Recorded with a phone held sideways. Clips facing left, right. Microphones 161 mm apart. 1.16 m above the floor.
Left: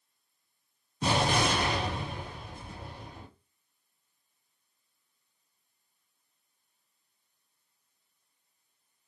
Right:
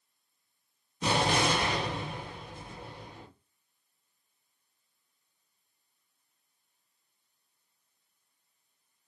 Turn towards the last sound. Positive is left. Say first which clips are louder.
# even
turn(degrees=40)  # may be behind; listen again after turning